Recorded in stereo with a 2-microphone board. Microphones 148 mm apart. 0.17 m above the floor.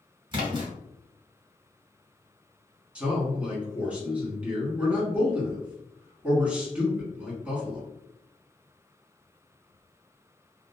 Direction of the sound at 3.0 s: 10° right (ahead or behind).